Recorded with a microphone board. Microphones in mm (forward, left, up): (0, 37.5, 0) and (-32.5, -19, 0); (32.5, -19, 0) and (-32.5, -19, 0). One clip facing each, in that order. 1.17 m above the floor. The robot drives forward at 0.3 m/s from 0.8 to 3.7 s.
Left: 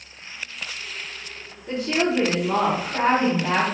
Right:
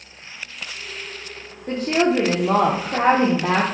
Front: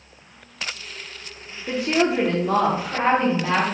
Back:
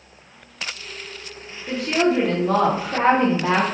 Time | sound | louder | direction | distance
1.7 | a woman speaking | right 4 dB, back 1 dB | 70° right | 0.6 m